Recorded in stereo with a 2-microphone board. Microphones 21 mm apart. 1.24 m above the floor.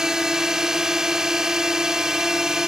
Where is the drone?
25° right (ahead or behind).